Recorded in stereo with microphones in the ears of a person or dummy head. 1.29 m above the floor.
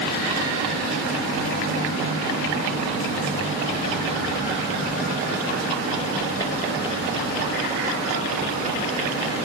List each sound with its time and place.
Only background noise.